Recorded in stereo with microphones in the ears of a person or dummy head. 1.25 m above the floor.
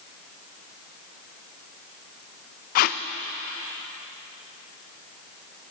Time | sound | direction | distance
2.8 | tape being pulled | 50° left (ahead or behind) | 0.5 m